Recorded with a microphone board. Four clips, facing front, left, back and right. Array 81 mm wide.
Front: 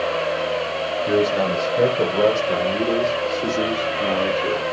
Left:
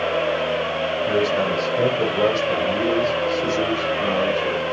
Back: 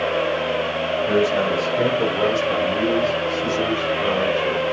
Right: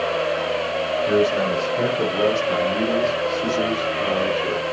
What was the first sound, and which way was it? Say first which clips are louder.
A man speaking: right 2 dB, even; straight ahead.